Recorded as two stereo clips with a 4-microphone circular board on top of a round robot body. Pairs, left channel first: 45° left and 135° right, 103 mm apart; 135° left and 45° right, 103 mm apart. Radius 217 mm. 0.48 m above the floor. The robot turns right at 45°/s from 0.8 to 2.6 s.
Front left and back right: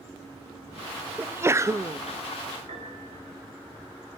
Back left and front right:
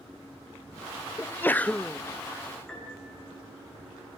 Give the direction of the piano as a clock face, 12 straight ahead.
5 o'clock.